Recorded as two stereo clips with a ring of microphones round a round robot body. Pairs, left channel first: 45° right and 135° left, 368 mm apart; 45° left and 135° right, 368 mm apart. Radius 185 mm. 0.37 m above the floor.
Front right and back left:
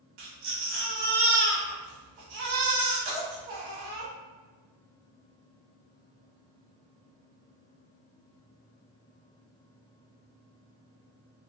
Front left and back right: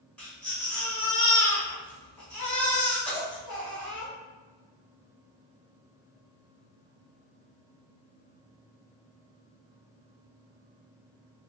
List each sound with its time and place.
0.2 s a baby crying: 130° left, 1.2 m